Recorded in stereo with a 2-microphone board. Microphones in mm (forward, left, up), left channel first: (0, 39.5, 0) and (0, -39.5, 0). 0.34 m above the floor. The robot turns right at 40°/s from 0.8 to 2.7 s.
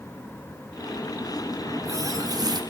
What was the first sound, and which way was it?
A running tap, 140° right.